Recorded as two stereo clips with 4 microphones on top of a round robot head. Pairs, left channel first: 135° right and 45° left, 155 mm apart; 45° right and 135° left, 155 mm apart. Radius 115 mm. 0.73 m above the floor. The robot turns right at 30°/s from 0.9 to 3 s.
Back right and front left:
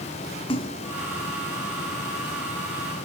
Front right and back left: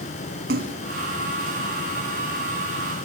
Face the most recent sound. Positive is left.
turn(degrees=-130)